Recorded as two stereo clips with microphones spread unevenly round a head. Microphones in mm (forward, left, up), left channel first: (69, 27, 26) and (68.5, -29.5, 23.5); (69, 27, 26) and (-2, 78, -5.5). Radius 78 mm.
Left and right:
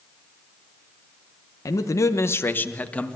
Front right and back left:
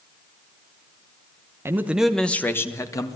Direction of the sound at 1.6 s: 105° left.